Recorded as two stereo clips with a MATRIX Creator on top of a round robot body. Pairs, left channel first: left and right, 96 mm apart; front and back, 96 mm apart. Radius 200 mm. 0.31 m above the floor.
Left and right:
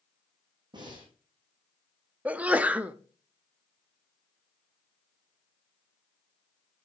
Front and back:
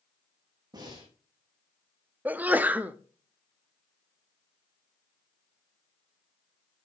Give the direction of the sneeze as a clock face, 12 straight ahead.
5 o'clock.